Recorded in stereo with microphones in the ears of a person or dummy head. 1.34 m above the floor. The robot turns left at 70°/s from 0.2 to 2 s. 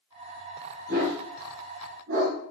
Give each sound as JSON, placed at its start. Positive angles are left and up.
{"t": 0.9, "sound": "a dog barking", "side_deg": -55, "distance_m": 4.5}